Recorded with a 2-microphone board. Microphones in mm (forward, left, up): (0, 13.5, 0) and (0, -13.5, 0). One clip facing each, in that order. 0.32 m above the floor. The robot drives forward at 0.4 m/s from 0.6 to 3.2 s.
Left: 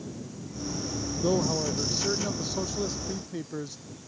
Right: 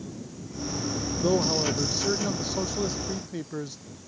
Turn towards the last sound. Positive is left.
turn(degrees=-10)  # may be behind; listen again after turning